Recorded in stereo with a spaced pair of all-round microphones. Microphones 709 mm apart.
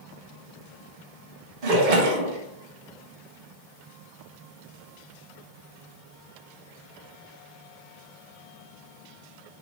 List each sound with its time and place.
1.6 s a splash: 75° right (ahead or behind), 0.9 m